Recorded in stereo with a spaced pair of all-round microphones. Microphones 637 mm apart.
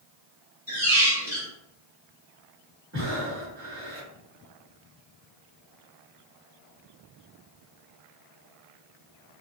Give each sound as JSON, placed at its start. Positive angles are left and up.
{"t": 0.7, "sound": "a squeak", "side_deg": -25, "distance_m": 1.2}
{"t": 2.9, "sound": "breathing", "side_deg": -20, "distance_m": 1.2}